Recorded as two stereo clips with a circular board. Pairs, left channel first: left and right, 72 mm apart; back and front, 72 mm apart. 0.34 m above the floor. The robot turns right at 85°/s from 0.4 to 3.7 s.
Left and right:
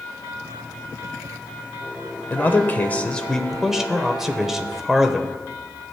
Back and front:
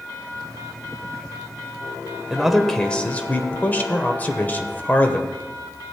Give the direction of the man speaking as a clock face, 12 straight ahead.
10 o'clock.